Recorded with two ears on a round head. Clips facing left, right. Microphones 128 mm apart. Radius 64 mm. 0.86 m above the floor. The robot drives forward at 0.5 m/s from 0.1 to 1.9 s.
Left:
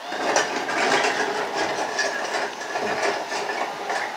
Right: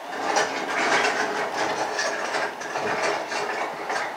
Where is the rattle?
70° left (ahead or behind), 0.8 m; by 4.1 s 30° left (ahead or behind), 1.4 m.